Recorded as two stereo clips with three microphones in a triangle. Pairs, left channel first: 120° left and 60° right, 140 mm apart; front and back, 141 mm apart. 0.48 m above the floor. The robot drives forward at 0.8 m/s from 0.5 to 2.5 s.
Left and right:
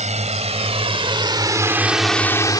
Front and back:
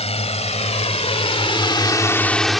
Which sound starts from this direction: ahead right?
A drone, at 0.0 s.